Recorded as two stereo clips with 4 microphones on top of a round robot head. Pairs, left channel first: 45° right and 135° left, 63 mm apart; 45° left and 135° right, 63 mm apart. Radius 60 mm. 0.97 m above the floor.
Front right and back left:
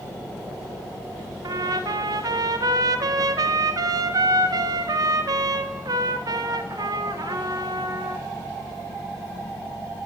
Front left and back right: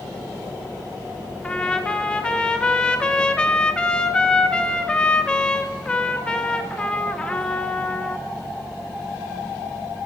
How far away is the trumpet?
About 2.5 m.